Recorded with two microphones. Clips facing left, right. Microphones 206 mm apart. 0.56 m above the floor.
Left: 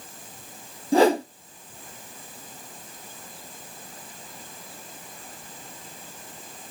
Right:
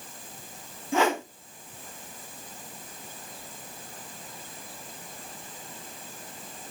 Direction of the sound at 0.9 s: 35° left (ahead or behind).